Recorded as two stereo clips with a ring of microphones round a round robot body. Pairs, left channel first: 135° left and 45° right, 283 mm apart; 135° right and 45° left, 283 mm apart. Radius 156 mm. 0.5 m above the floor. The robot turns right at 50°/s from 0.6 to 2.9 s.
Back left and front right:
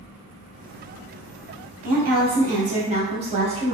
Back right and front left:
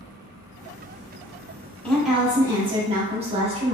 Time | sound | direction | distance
1.8 | a woman speaking | 55° right | 1.0 m